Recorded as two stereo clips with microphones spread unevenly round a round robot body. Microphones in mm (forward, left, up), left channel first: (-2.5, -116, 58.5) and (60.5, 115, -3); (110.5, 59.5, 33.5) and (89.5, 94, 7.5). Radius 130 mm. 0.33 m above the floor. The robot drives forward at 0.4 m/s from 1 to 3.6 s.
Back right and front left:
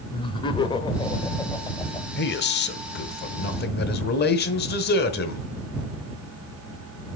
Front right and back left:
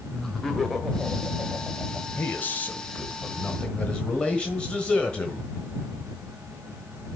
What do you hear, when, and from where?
0.1 s laughter: 175° left, 1.1 m
2.2 s a man speaking: 130° right, 1.0 m; by 5.5 s 160° right, 1.3 m